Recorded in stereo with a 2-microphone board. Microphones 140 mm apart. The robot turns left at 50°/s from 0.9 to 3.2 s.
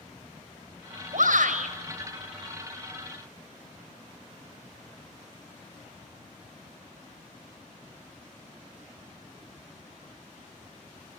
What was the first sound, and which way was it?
A shout, 85° right.